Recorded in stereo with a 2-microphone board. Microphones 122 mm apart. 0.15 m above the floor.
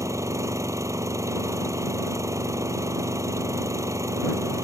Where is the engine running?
25° right (ahead or behind).